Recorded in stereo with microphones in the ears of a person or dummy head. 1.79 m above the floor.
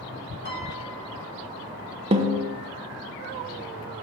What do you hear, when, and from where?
0.5 s a piano: 65° left (ahead or behind), 4 m
2.1 s a snare drum: 30° right (ahead or behind), 1.0 m